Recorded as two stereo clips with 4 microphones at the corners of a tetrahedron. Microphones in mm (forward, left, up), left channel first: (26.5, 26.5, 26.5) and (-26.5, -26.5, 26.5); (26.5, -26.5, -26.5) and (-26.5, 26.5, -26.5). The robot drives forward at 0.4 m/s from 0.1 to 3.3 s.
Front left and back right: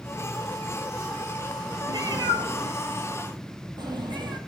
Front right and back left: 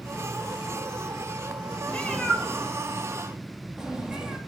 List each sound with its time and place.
1.9 s a cat meowing: 120° right, 0.8 m; by 4.4 s 145° right, 1.2 m